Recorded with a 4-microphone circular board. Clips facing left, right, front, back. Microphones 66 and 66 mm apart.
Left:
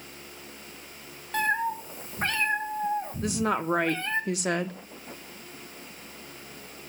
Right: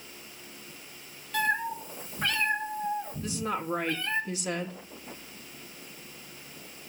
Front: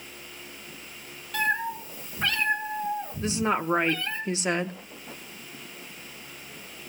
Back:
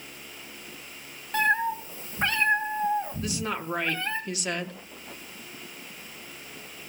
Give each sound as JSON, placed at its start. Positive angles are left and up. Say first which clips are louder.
{"t": 1.3, "sound": "a cat meowing", "louder": "left 2 dB, back 3 dB", "azimuth_deg": 130, "distance_m": 2.5}
{"t": 3.2, "sound": "a woman speaking", "louder": "left 5 dB, front 5 dB", "azimuth_deg": 65, "distance_m": 1.3}